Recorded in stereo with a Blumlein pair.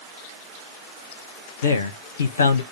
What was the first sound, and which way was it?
A man speaking, 65° left.